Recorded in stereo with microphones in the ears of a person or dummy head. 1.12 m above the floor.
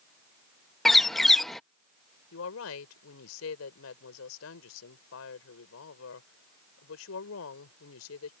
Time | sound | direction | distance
0.8 | a bird | 5° left (ahead or behind) | ?
2.3 | a woman speaking | 75° left (ahead or behind) | ?